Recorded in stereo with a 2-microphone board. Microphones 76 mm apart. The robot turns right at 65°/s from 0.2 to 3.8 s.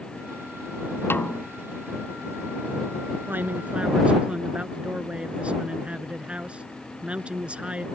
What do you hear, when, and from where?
1.1 s a snare drum: 30° left (ahead or behind); by 1.5 s 5° left (ahead or behind)
3.3 s a man speaking: 65° right; by 7.9 s 30° right